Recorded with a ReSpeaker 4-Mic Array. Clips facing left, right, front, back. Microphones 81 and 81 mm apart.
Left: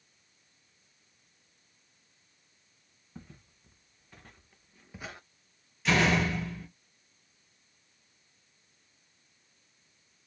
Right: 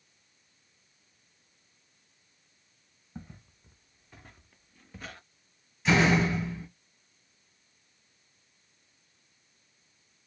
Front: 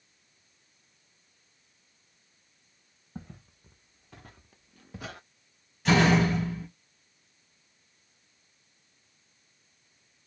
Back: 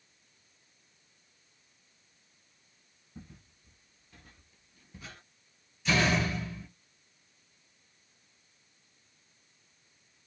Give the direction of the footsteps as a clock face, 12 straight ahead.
1 o'clock.